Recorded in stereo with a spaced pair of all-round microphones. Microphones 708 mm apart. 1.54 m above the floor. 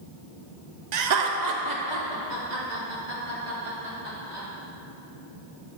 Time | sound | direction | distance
0.9 | laughter | 70° right (ahead or behind) | 0.7 m